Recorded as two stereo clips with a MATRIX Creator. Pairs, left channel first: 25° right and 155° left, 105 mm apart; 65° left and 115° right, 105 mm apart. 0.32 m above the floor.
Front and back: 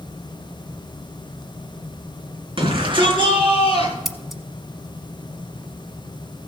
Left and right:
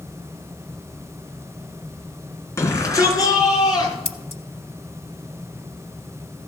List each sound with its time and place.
2.6 s a shout: 130° left, 3.5 m; by 4.0 s 115° left, 5 m
4.0 s scissors: 70° left, 1.0 m